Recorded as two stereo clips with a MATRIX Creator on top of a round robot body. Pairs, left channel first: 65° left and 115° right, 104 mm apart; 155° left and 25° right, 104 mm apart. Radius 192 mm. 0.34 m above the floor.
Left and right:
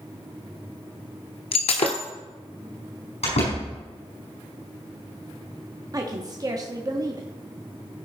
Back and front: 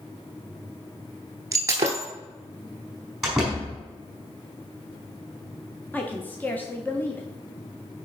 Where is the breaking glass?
40° left, 0.6 m.